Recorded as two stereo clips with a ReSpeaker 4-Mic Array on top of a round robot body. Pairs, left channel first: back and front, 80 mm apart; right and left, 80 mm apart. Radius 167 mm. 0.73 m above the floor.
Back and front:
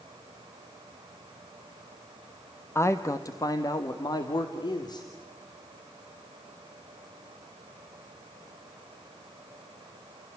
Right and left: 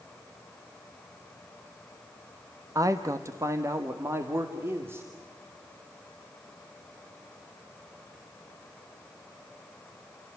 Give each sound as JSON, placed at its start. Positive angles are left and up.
{"t": 2.8, "sound": "a man speaking", "azimuth_deg": 130, "distance_m": 1.4}